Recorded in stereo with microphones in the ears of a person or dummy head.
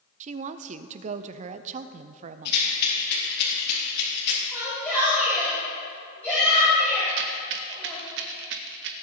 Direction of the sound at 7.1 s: 60° right (ahead or behind).